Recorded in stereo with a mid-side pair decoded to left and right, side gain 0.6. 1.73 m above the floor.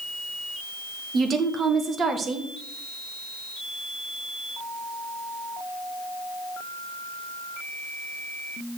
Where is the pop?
I don't hear a pop.